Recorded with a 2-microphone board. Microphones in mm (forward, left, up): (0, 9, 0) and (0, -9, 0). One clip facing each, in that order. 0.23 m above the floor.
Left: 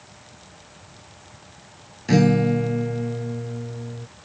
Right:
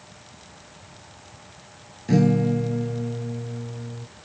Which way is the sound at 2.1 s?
35° left (ahead or behind).